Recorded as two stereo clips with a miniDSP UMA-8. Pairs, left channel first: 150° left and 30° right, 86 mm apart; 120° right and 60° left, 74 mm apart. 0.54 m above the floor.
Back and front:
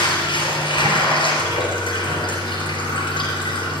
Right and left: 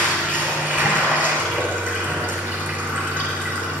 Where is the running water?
125° left, 3.5 m.